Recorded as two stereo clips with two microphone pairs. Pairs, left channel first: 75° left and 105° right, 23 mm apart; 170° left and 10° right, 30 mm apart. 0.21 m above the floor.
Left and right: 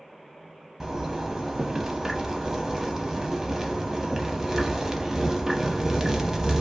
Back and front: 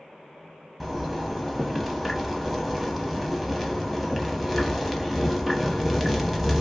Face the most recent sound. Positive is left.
turn(degrees=-90)